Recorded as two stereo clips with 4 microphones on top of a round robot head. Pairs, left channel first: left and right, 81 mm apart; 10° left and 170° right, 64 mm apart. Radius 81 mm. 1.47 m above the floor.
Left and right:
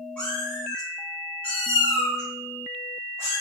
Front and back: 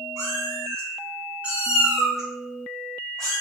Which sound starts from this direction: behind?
A cat meowing, at 0.2 s.